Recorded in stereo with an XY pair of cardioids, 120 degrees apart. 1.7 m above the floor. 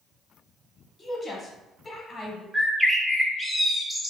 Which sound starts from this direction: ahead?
A bird, at 2.5 s.